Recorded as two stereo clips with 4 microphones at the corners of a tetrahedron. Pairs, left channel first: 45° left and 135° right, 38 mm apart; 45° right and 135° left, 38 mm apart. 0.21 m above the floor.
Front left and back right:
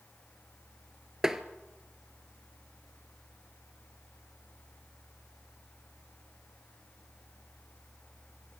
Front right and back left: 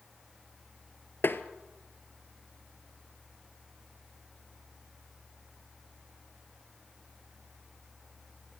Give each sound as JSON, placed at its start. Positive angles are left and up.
{"t": 1.2, "sound": "tapping", "azimuth_deg": -60, "distance_m": 1.4}